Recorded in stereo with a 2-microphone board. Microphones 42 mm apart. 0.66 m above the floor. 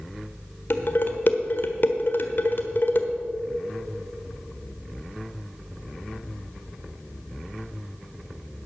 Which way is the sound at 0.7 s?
55° left (ahead or behind).